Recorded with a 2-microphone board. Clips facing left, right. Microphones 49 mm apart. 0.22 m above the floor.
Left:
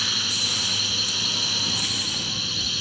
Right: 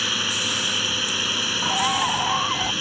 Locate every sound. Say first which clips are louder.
0.0 s a drone: right 3 dB; 40° right (ahead or behind)
1.6 s a bird: right 8 dB; 75° right (ahead or behind)